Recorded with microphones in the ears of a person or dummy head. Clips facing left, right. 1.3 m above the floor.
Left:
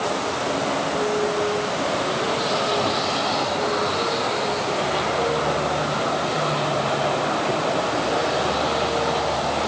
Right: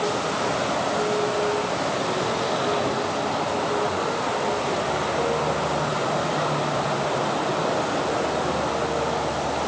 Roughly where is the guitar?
No guitar in this recording.